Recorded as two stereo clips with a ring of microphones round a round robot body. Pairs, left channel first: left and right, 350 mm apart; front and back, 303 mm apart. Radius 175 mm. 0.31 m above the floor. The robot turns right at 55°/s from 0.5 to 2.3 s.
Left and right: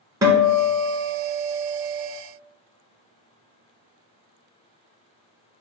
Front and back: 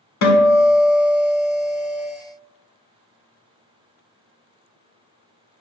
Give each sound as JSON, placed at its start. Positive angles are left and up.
{"t": 0.2, "sound": "a guitar", "azimuth_deg": -10, "distance_m": 1.1}